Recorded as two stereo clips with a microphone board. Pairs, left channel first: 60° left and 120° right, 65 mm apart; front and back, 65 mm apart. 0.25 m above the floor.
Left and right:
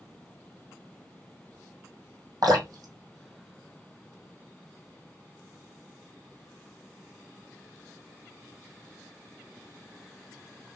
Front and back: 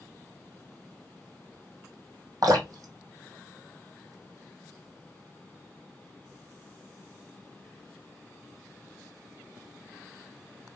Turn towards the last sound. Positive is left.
turn(degrees=-150)